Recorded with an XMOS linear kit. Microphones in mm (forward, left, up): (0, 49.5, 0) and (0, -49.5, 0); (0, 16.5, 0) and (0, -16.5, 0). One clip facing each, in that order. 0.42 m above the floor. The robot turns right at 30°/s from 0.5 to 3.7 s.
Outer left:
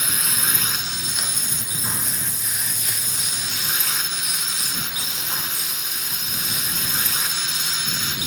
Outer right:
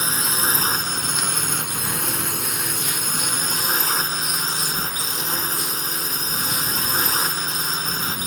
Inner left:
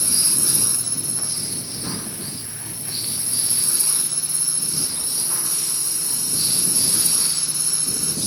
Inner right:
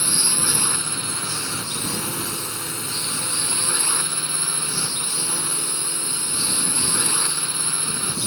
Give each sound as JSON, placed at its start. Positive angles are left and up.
{"t": 0.0, "sound": "a drone", "azimuth_deg": -145}